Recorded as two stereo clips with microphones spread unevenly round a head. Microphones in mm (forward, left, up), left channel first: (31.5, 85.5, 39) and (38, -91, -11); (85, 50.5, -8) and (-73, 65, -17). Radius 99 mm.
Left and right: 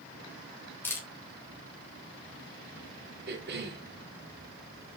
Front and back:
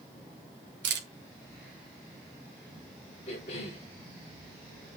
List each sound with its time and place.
0.8 s a camera shutter: 175° left, 3 m
3.3 s a cough: 70° right, 4 m